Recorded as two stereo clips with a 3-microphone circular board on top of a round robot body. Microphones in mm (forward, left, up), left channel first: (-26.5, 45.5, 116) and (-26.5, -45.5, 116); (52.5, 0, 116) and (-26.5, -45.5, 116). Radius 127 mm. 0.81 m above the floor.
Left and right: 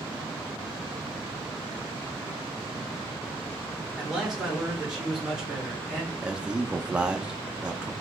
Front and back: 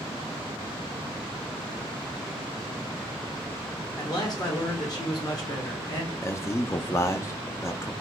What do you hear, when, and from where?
4.0 s a man speaking: 5° right, 1.0 m
6.2 s a man speaking: 15° right, 0.5 m